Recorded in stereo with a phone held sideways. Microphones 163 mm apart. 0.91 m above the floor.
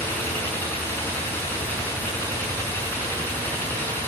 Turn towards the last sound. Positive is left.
turn(degrees=10)  # may be behind; listen again after turning